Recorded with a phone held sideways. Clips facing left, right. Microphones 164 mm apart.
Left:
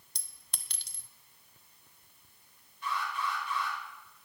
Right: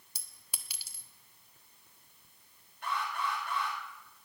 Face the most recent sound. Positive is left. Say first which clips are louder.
# even
turn(degrees=-55)  # may be behind; listen again after turning